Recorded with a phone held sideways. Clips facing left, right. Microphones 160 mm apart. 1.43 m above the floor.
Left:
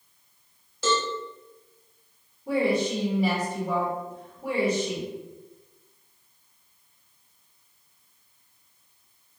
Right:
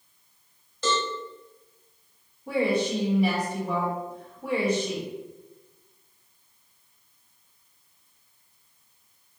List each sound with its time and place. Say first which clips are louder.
0.8 s a cowbell: left 1 dB; 5° left (ahead or behind), 0.7 m
2.5 s a woman speaking: left 1 dB; 5° left (ahead or behind), 1.0 m